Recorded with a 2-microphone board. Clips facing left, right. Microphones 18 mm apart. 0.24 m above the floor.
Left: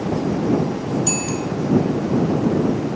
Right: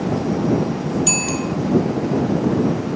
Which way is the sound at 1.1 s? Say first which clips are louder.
Right 2 dB; 30° right (ahead or behind).